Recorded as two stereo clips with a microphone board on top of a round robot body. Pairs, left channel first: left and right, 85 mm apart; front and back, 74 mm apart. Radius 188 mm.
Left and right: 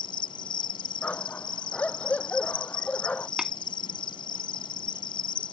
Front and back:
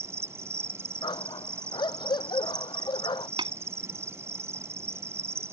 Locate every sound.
0.0 s an insect: 125° left
1.0 s a dog barking: 15° left
3.4 s tapping: 175° right